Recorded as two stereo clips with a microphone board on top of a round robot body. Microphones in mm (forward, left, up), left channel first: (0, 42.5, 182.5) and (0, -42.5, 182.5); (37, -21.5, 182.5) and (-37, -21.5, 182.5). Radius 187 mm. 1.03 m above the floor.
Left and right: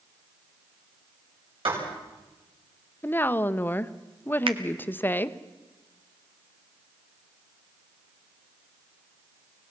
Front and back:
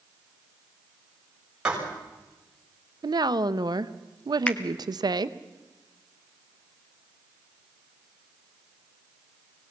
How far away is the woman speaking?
About 0.7 m.